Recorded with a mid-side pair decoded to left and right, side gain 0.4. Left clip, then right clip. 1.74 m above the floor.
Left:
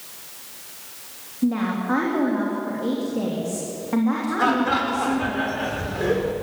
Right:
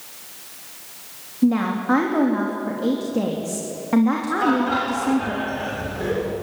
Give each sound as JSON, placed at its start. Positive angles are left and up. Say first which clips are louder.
{"t": 1.4, "sound": "a woman speaking", "louder": "right 3 dB", "azimuth_deg": -35, "distance_m": 3.5}
{"t": 4.4, "sound": "laughter", "louder": "left 1 dB", "azimuth_deg": 30, "distance_m": 7.0}